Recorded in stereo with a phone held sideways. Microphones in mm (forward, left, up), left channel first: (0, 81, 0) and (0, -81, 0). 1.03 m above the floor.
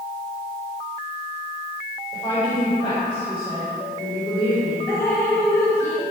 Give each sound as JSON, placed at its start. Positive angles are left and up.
{"t": 2.1, "sound": "a woman speaking", "side_deg": 20, "distance_m": 5.0}
{"t": 4.9, "sound": "dripping", "side_deg": 15, "distance_m": 3.5}